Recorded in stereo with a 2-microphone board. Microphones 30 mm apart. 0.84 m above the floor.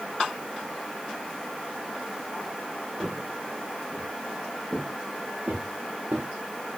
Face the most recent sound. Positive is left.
turn(degrees=-60)  # may be behind; listen again after turning